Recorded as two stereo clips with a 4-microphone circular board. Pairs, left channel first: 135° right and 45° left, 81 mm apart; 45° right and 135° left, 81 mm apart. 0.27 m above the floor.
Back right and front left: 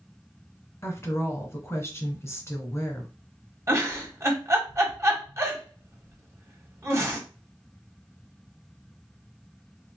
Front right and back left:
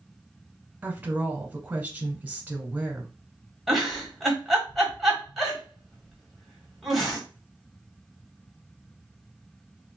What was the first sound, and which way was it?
A woman speaking, 165° right.